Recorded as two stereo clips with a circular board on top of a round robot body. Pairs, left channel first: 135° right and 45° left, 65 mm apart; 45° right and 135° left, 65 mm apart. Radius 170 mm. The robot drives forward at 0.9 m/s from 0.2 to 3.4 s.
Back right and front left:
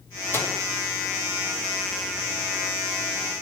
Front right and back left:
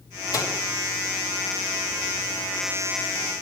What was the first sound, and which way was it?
A microwave, 75° right.